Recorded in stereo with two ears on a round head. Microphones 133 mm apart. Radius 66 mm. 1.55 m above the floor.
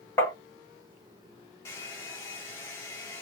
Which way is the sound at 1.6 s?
20° left (ahead or behind).